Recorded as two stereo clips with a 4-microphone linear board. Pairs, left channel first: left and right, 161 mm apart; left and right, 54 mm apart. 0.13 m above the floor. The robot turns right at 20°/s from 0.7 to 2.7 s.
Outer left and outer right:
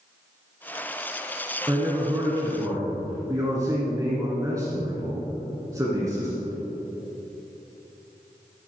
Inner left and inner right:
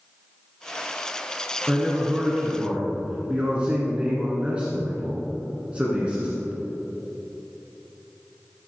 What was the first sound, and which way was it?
A man speaking, 25° right (ahead or behind).